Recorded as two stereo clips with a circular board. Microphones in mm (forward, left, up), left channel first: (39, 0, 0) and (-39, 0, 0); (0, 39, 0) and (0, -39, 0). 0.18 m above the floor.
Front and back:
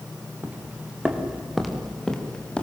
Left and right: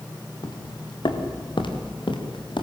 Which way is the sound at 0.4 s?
110° left.